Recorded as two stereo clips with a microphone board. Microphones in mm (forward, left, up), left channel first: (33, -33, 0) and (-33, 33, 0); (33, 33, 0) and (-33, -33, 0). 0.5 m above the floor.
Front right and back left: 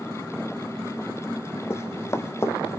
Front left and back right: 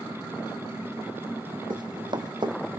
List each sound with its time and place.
1.7 s running footsteps: 105° right, 1.3 m